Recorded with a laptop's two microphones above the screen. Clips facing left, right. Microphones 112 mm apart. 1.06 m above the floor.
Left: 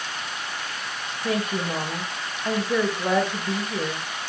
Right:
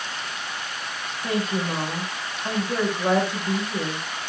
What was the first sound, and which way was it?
A woman speaking, 30° right (ahead or behind).